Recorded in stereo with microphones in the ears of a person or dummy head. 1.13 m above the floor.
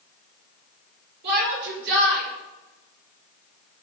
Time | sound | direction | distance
1.2 | a shout | 60° right (ahead or behind) | 5.5 m